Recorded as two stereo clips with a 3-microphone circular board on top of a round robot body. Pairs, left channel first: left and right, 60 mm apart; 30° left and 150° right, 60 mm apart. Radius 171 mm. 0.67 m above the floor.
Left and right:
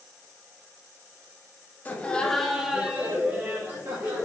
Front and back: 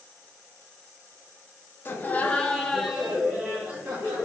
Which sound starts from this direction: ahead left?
Laughter, at 1.9 s.